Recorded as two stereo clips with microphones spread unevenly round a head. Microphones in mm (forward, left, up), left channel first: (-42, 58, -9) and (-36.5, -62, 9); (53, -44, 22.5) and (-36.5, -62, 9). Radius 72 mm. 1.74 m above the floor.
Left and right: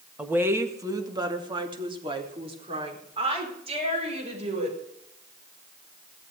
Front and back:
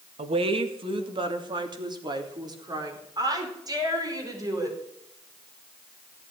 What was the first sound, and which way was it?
A woman speaking, 160° right.